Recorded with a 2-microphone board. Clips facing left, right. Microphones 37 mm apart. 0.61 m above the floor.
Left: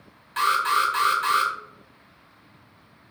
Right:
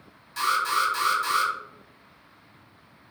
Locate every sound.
0.4 s an alarm: 40° left (ahead or behind), 0.8 m